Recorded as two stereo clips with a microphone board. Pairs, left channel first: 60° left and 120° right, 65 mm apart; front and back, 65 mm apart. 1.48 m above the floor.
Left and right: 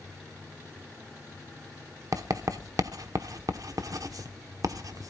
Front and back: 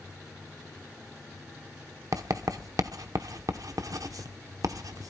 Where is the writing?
150° right, 1.0 m.